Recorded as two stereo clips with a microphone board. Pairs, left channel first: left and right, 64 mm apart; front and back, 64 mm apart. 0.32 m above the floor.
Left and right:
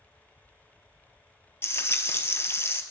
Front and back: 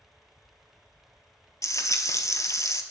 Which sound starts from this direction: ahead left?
Frying, at 1.6 s.